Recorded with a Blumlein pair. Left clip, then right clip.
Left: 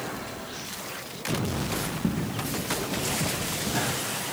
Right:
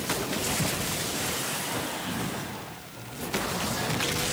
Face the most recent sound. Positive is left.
turn(degrees=40)